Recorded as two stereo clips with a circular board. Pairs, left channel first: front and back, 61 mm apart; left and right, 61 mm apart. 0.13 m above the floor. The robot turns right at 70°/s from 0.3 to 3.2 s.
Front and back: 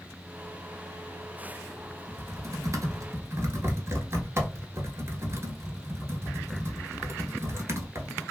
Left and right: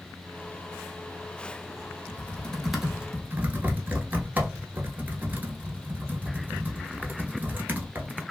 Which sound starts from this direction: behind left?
Typing on a keyboard, at 2.1 s.